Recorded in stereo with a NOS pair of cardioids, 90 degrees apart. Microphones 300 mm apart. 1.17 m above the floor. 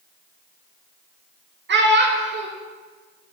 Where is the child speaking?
40° right, 1.4 m.